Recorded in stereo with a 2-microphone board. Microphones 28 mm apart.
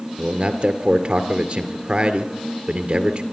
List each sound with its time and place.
0.2 s a man speaking: 40° right (ahead or behind), 1.8 m